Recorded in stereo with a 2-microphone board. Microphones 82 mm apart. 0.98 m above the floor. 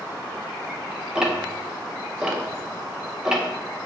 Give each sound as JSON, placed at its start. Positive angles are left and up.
{"t": 1.1, "sound": "ticking", "side_deg": -10, "distance_m": 0.5}